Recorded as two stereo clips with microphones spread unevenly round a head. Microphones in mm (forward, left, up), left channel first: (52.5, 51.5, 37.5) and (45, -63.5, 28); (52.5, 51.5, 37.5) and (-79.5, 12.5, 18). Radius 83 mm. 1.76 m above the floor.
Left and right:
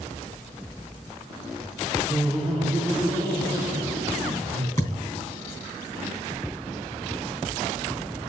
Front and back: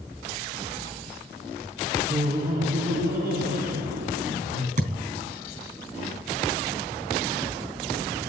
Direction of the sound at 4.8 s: 160° left.